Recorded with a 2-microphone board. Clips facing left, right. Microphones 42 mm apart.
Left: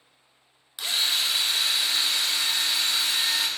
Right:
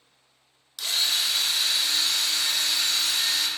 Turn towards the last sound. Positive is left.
turn(degrees=25)  # may be behind; listen again after turning